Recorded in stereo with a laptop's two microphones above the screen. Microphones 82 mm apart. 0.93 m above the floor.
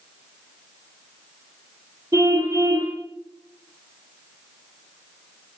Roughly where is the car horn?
Right.